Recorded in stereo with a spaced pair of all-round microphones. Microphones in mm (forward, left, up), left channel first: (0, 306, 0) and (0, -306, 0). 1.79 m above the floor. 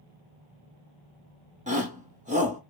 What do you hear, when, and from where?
1.7 s a shout: 10° right (ahead or behind), 1.2 m